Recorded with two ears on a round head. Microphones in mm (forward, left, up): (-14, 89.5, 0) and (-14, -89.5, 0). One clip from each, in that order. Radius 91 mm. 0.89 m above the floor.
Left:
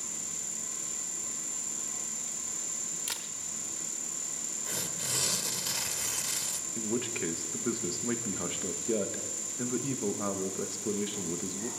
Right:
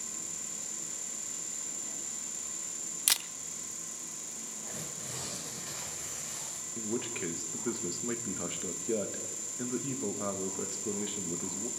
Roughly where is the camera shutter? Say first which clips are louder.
Right 11 dB; right.